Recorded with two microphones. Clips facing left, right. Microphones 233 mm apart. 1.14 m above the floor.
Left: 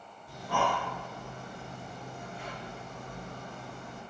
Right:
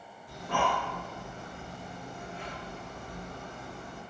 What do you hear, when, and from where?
0.3 s breathing: 10° left (ahead or behind), 1.5 m